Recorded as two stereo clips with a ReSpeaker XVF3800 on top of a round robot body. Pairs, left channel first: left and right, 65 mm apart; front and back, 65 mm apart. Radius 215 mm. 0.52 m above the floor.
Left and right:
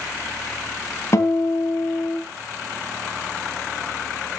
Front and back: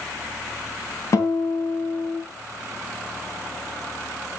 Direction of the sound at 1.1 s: 40° left.